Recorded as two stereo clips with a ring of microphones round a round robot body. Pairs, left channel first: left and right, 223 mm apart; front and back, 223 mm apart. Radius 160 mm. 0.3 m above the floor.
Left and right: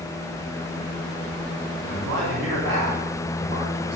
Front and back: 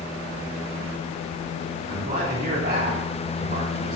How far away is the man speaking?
About 3.5 m.